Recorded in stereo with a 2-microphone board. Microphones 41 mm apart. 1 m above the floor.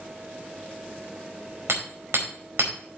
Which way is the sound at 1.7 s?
85° right.